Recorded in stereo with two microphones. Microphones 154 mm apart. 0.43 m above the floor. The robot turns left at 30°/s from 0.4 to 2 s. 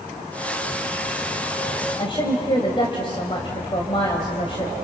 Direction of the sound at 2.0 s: 35° left (ahead or behind).